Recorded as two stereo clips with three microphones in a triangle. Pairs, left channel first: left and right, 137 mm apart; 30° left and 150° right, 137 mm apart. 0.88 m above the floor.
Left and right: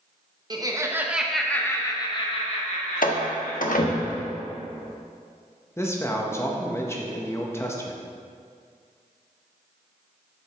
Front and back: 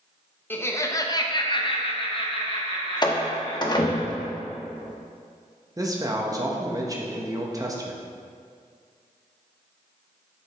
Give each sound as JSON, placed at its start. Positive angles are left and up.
{"t": 0.5, "sound": "laughter", "azimuth_deg": -40, "distance_m": 0.9}
{"t": 3.0, "sound": "a door slam", "azimuth_deg": 85, "distance_m": 0.8}
{"t": 5.8, "sound": "a man speaking", "azimuth_deg": 155, "distance_m": 0.9}